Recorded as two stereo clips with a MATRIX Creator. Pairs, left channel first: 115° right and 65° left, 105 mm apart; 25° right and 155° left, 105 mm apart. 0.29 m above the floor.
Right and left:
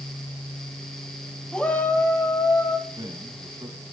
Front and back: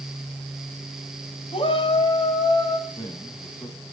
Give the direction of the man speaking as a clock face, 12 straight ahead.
11 o'clock.